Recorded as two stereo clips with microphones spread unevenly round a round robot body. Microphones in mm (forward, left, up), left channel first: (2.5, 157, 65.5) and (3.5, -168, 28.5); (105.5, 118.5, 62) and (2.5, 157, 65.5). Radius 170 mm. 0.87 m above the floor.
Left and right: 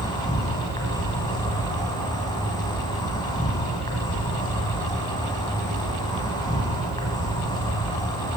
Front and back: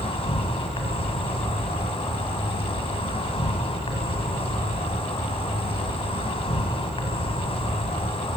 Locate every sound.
0.0 s an insect: 15° left, 2.5 m